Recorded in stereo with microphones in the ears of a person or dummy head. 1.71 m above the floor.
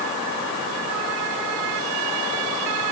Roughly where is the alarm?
No alarm in this recording.